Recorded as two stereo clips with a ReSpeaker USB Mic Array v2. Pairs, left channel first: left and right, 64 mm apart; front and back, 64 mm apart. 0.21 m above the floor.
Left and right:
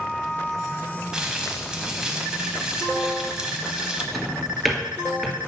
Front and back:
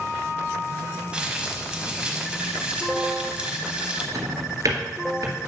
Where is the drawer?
Straight behind, 1.6 m.